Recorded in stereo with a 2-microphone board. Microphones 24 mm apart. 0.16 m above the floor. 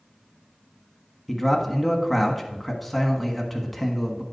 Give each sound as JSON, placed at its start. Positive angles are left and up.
{"t": 1.3, "sound": "a man speaking", "side_deg": 5, "distance_m": 1.2}